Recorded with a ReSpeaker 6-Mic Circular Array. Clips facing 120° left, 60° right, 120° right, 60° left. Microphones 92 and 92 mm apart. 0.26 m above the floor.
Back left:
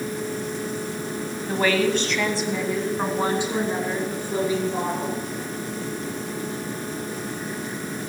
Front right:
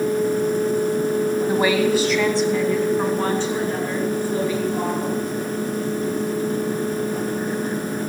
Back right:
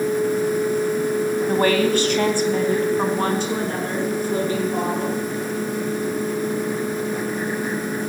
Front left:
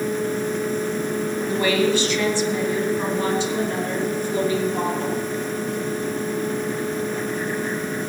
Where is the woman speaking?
125° right, 1.7 m; by 5.2 s 170° right, 5 m.